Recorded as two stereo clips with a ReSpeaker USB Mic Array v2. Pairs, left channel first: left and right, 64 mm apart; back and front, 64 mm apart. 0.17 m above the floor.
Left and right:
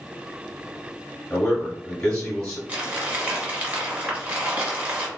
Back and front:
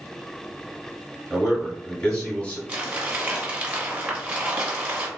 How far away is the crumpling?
About 1.1 m.